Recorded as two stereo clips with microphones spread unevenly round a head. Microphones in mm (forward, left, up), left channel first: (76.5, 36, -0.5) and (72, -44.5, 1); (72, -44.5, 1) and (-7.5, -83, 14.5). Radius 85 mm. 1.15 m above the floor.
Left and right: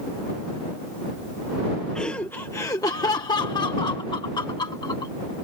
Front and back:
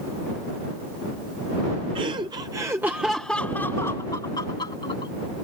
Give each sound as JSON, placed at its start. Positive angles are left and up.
{"t": 1.9, "sound": "laughter", "azimuth_deg": 170}